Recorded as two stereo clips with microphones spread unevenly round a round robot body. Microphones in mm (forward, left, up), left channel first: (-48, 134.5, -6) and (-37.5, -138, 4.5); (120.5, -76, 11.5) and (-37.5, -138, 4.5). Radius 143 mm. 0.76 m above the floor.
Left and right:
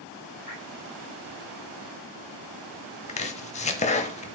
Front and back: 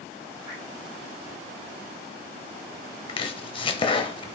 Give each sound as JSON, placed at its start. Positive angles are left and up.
{"t": 0.5, "sound": "dripping", "azimuth_deg": 150, "distance_m": 4.0}
{"t": 3.1, "sound": "chopping", "azimuth_deg": 45, "distance_m": 0.6}